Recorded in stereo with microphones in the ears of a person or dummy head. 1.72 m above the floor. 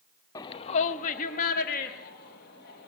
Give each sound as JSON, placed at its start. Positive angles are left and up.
{"t": 0.3, "sound": "a shout", "side_deg": 20, "distance_m": 0.6}